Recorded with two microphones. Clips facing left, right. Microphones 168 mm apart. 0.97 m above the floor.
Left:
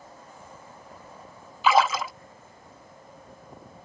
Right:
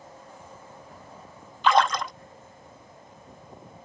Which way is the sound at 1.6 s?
5° left (ahead or behind).